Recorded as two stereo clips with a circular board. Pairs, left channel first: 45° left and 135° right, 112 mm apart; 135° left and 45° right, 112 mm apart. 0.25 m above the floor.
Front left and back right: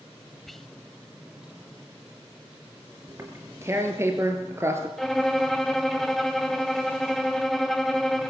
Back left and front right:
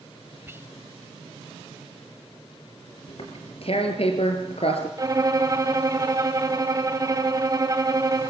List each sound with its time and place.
0.5 s whispering: 40° right, 1.0 m
3.1 s tearing paper: 160° left, 3 m
5.0 s a violin: 40° right, 1.8 m